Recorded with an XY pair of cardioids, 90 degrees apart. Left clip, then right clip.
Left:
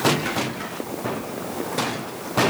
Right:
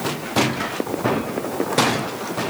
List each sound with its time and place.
Only background noise.